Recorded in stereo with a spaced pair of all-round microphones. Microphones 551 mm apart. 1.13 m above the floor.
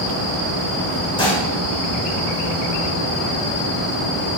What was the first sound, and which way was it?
Dishes clattering, 10° left (ahead or behind).